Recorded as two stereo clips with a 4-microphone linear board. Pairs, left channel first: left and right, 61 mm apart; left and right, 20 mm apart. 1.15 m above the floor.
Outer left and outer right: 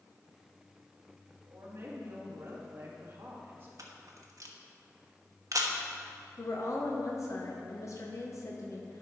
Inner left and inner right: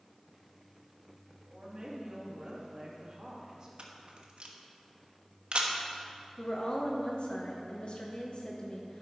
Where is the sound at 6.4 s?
55° left (ahead or behind), 0.9 m.